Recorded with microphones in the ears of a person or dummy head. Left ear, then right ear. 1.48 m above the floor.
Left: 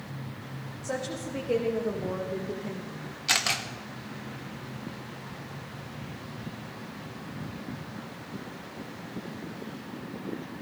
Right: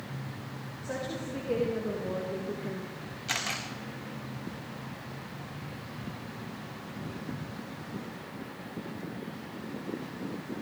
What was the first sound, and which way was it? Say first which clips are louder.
A woman speaking: left 3 dB; 20° left (ahead or behind).